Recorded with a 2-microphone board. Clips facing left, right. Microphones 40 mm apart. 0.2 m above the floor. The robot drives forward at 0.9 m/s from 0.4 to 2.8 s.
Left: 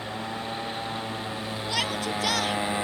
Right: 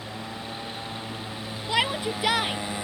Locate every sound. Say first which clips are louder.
0.0 s a motorcycle: left 3 dB; 20° left (ahead or behind); by 2.9 s 25° left (ahead or behind)
1.7 s a shout: right 4 dB; 25° right (ahead or behind); by 2.6 s 20° right (ahead or behind)